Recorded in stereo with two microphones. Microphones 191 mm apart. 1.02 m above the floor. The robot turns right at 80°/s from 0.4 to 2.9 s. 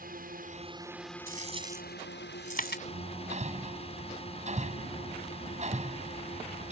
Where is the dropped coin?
50° right (ahead or behind); by 2.8 s 60° left (ahead or behind).